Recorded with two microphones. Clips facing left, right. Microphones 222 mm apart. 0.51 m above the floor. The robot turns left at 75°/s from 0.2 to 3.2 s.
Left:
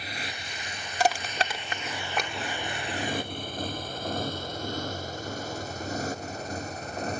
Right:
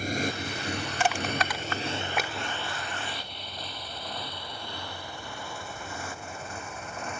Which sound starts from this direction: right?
A motorcycle, at 0.0 s.